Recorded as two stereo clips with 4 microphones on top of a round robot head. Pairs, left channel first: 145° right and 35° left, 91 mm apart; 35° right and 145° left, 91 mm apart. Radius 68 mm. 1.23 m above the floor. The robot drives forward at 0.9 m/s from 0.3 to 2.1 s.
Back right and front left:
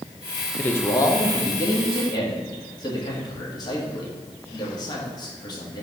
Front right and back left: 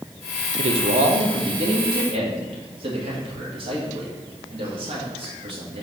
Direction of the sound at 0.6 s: 140° left.